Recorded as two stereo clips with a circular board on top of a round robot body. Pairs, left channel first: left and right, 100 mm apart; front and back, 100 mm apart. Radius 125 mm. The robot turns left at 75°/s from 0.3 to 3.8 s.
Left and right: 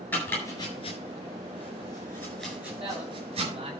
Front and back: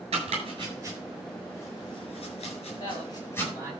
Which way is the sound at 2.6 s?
40° right.